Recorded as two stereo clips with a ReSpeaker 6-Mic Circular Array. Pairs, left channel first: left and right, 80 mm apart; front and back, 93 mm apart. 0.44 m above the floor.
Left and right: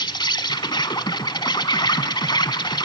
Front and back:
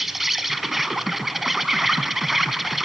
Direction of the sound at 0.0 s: 95° left.